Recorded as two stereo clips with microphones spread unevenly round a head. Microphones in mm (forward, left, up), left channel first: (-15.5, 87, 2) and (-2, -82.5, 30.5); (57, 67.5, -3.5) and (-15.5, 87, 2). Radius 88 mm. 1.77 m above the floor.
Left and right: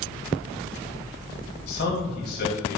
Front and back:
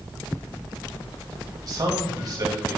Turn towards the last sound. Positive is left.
turn(degrees=130)